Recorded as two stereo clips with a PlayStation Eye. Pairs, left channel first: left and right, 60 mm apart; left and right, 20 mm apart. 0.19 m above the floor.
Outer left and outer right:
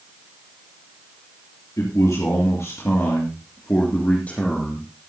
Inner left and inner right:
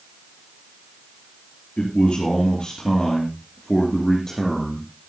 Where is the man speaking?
65° left (ahead or behind), 3.5 m; by 4.9 s 15° left (ahead or behind), 3 m.